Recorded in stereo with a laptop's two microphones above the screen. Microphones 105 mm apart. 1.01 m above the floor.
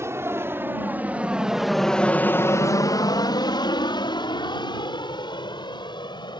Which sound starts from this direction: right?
An aircraft, at 0.0 s.